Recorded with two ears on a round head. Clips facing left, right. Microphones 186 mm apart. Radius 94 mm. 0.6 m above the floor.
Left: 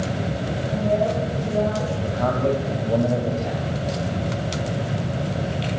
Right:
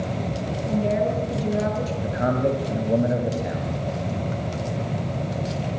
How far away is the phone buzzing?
No phone buzzing in this recording.